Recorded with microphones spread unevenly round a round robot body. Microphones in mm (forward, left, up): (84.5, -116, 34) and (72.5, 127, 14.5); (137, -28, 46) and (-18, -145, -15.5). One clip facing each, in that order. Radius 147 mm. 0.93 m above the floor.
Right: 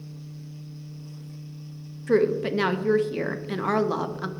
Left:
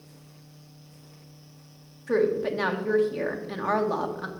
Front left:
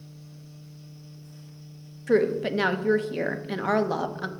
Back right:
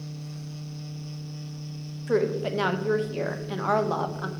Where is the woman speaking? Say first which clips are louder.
Right 2 dB, front left 2 dB; 45° right, 0.7 m.